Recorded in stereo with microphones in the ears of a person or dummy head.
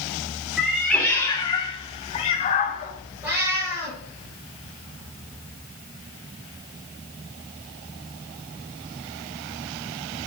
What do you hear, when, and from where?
0.6 s a cat meowing: centre (ahead or behind), 1.0 m; by 2.9 s 45° left (ahead or behind), 1.6 m
3.2 s a cat meowing: 10° right (ahead or behind), 5.5 m